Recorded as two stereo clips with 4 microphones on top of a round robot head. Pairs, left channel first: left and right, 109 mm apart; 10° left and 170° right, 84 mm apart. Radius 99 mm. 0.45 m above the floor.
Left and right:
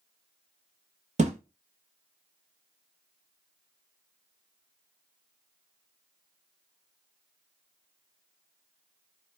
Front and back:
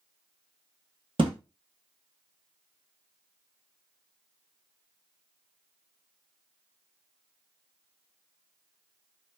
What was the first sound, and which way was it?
A thud, 125° right.